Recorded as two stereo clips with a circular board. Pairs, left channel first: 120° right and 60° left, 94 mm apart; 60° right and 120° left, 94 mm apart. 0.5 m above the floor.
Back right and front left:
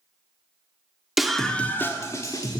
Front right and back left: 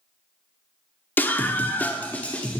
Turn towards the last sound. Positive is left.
turn(degrees=-130)